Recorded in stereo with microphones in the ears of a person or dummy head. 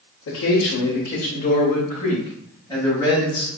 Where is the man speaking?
75° left (ahead or behind), 0.6 m; by 3.5 s 15° left (ahead or behind), 1.8 m.